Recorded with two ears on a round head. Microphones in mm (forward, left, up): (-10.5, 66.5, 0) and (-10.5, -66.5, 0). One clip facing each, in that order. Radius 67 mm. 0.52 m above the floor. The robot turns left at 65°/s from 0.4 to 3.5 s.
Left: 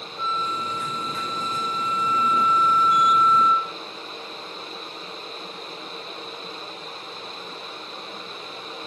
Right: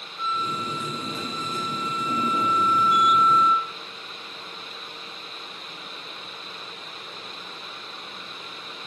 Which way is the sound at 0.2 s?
50° right.